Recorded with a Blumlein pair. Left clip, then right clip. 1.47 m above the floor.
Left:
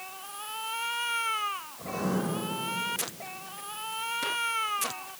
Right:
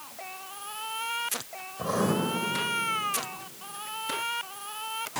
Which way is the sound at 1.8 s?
30° right.